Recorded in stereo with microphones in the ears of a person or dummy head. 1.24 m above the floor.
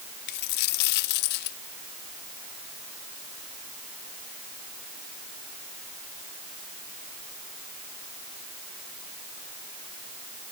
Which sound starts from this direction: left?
A dropped coin, at 0.3 s.